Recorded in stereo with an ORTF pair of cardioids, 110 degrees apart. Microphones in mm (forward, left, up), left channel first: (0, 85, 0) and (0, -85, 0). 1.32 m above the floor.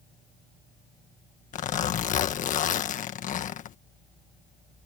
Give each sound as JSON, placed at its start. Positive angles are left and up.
{"t": 1.5, "sound": "a zipper", "azimuth_deg": 50}